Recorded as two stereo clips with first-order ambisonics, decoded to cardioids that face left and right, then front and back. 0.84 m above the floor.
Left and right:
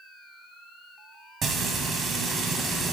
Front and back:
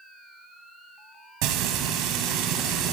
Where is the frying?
155° right, 2.0 m.